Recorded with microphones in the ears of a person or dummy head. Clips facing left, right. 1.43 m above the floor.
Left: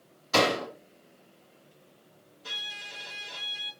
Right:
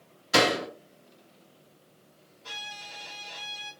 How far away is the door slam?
About 1.4 m.